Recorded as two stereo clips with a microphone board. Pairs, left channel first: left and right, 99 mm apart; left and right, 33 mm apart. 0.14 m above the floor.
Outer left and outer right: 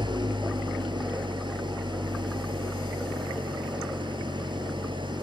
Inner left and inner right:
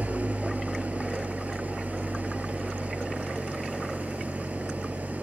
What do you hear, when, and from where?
0.0 s an engine running: 55° right (ahead or behind), 1.1 m